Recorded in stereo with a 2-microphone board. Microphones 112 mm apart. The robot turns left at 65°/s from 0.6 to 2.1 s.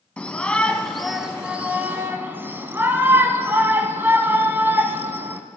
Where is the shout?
10° left (ahead or behind), 1.1 m; by 5.4 s 20° right (ahead or behind), 1.1 m.